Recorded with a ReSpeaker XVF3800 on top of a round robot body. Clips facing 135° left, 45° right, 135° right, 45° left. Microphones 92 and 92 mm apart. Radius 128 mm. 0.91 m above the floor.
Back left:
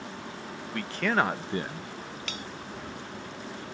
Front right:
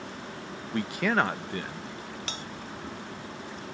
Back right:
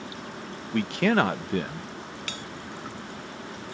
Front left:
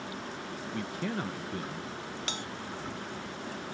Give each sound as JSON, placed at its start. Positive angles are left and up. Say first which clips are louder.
{"t": 0.7, "sound": "a man speaking", "louder": "front right 1 dB, back right 13 dB", "azimuth_deg": -115}
{"t": 2.3, "sound": "a bell", "louder": "even, even", "azimuth_deg": -10}